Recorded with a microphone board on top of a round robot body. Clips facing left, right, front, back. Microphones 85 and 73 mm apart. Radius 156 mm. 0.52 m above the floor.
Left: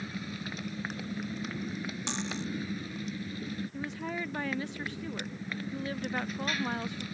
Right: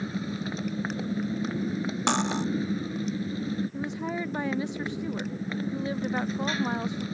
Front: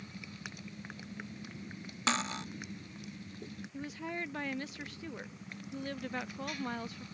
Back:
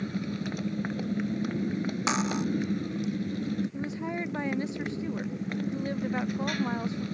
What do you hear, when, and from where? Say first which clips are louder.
0.0 s a motorcycle: right 7 dB, back 14 dB; 150° right
2.1 s cutlery clinking: right 12 dB, back 4 dB; 105° right
3.7 s a woman speaking: right 5 dB, back 7 dB; 140° right